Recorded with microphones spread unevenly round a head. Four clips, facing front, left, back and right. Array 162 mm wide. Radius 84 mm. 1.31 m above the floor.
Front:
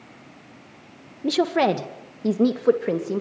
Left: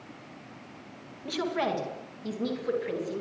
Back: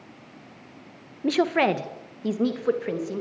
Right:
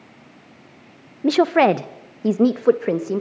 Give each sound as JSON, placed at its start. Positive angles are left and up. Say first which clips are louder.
{"t": 1.2, "sound": "a woman speaking", "louder": "right 14 dB, front 1 dB", "azimuth_deg": -90, "distance_m": 1.4}